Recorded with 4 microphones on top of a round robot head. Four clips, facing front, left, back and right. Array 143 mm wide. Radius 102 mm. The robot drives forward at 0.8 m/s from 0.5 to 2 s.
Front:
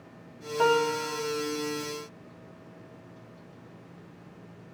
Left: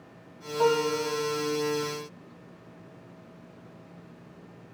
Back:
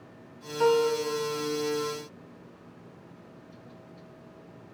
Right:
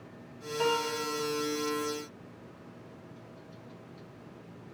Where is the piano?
10° left, 3 m; by 1.3 s 15° left, 2.5 m.